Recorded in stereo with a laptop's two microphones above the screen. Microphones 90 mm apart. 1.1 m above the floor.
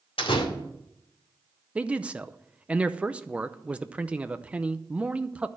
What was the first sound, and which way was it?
A door slam, 80° left.